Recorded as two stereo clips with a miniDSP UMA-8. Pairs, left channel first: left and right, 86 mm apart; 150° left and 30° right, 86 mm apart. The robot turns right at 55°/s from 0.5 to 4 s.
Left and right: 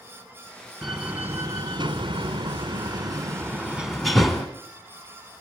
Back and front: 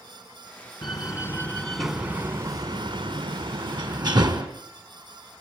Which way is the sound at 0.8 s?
175° right.